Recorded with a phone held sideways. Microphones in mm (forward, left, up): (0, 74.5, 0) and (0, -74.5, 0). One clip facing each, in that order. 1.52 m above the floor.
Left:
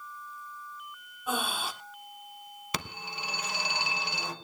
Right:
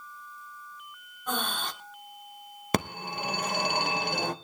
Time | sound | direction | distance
1.3 | breathing | 10° left (ahead or behind) | 1.3 m
2.7 | a phone ringing | 50° right (ahead or behind) | 1.0 m